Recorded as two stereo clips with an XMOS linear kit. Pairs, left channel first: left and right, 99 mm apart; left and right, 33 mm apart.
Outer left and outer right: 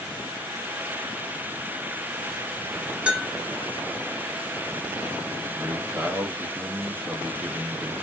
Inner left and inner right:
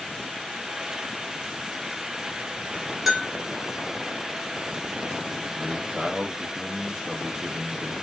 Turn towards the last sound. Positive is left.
turn(degrees=-25)  # may be behind; listen again after turning